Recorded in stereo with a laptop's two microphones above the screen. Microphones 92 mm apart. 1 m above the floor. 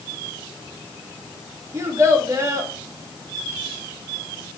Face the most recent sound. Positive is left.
turn(degrees=-30)  # may be behind; listen again after turning